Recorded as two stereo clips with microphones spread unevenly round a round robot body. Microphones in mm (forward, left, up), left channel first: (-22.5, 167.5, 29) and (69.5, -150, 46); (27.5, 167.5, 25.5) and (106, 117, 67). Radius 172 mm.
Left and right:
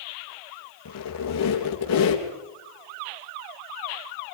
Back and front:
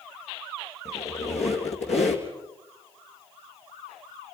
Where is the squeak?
155° left, 3.5 m.